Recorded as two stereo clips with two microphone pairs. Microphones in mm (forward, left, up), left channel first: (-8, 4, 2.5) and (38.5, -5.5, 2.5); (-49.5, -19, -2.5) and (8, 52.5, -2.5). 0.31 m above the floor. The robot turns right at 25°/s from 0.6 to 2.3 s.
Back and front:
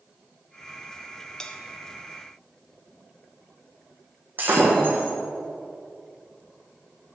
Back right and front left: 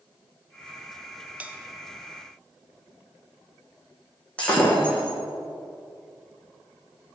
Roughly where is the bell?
Left.